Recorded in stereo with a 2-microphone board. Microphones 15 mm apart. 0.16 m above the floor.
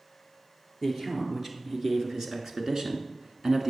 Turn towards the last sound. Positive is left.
turn(degrees=-40)  # may be behind; listen again after turning